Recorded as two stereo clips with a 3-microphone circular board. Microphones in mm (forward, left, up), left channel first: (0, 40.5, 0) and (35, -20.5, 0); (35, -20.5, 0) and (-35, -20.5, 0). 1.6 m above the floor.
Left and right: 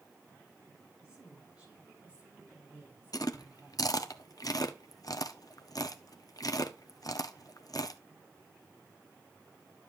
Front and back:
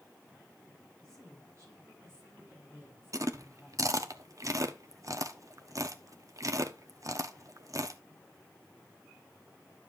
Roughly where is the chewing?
Behind left.